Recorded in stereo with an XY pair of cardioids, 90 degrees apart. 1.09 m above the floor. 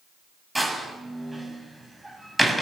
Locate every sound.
0.6 s a door slam: 10° right, 7 m